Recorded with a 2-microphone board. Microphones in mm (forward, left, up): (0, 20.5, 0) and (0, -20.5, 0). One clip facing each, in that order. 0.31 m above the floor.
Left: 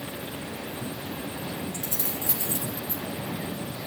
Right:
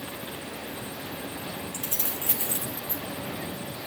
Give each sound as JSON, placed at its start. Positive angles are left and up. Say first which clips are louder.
{"t": 1.7, "sound": "keys jangling", "louder": "left 1 dB", "side_deg": -65, "distance_m": 2.5}